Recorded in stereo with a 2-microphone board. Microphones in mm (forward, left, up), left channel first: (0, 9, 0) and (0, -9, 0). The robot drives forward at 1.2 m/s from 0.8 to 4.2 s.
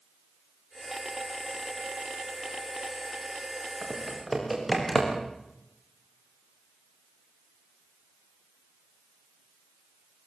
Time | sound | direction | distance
3.8 | typing on a keyboard | centre (ahead or behind) | 6 m